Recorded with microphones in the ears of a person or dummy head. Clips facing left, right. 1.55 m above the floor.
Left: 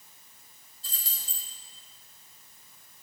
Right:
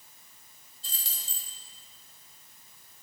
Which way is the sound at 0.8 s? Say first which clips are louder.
Right 1 dB; 35° right (ahead or behind).